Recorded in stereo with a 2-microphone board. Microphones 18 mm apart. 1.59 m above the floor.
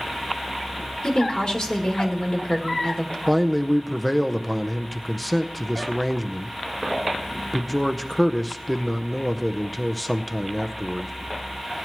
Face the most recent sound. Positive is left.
turn(degrees=5)  # may be behind; listen again after turning